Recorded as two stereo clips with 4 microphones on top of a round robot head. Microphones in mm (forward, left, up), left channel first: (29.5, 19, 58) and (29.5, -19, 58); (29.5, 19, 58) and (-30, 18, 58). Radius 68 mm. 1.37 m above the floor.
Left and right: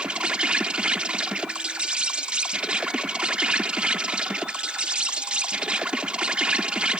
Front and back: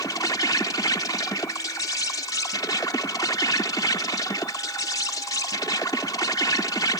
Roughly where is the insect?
Ahead right.